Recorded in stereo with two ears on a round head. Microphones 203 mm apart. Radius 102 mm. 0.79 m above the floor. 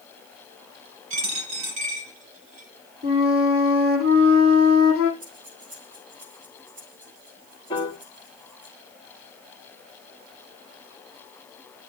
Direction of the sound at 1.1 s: 75° right (ahead or behind).